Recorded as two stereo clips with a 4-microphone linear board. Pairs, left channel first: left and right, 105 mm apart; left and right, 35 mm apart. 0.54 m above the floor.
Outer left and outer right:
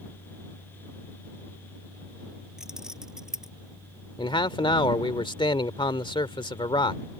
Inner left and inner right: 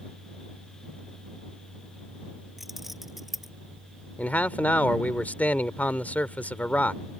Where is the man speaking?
60° left (ahead or behind).